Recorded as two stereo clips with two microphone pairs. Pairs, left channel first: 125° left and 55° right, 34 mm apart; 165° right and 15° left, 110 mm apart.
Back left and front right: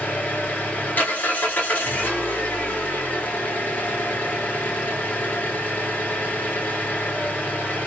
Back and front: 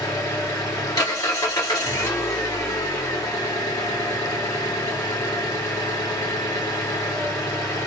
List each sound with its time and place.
0.0 s an engine running: 140° left, 1.2 m